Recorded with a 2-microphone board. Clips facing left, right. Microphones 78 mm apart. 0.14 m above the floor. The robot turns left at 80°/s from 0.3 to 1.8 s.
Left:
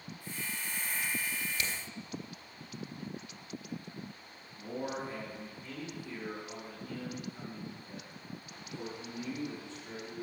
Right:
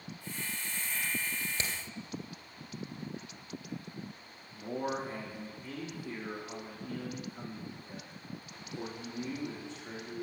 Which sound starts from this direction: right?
Hammering, at 1.6 s.